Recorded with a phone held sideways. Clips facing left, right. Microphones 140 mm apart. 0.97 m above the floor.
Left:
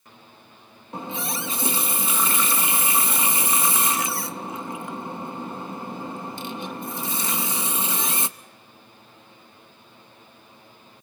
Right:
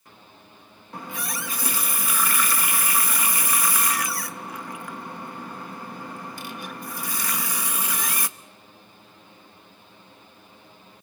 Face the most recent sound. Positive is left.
turn(degrees=25)  # may be behind; listen again after turning